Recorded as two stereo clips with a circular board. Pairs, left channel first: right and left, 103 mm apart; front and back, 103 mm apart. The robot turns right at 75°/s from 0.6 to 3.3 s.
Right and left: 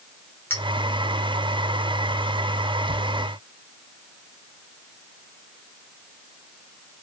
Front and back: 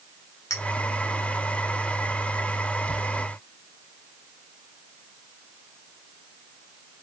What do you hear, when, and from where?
0.5 s a clink: 35° right, 0.9 m